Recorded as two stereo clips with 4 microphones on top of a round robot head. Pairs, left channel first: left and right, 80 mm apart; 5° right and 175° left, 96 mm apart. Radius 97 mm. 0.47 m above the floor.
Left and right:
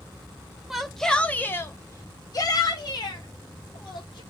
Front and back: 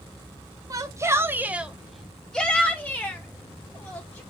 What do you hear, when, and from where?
0.7 s a shout: 175° right, 0.8 m; by 4.2 s 60° left, 1.9 m